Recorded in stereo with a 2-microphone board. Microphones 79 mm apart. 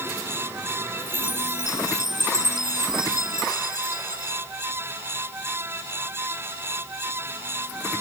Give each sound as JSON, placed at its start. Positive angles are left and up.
{"t": 1.0, "sound": "a chime", "side_deg": -75}